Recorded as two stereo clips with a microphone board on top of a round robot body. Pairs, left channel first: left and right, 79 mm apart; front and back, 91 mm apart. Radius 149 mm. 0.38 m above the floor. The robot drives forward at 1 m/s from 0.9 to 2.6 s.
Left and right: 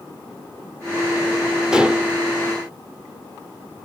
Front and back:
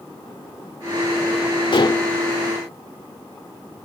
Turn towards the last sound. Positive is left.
turn(degrees=-55)